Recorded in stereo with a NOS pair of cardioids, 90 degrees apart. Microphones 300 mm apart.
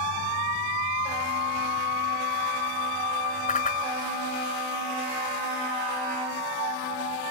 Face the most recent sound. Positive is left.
turn(degrees=30)